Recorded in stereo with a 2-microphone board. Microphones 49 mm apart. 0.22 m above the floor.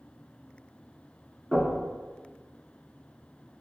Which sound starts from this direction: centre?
Knocking, at 1.5 s.